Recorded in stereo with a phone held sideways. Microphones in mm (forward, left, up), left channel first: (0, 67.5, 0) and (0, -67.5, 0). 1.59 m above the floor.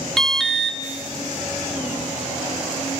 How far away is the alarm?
About 2 m.